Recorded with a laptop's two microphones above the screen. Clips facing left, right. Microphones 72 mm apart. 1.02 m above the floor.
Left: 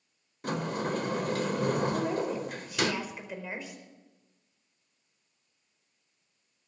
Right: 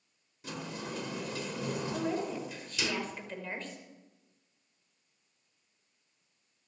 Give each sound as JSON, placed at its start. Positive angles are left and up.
{"t": 0.4, "sound": "a sliding door", "side_deg": 55, "distance_m": 1.2}
{"t": 1.9, "sound": "a woman speaking", "side_deg": 10, "distance_m": 4.5}